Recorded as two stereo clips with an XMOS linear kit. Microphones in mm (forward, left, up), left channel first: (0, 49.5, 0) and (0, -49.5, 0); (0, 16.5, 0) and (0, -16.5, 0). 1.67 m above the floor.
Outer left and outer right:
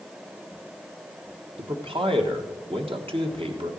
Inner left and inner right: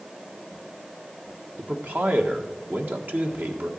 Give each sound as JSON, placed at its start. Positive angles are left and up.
{"t": 1.6, "sound": "a man speaking", "side_deg": -65, "distance_m": 1.6}